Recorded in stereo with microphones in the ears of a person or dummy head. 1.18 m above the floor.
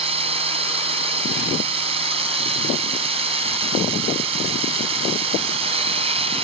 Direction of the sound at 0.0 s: 30° right (ahead or behind).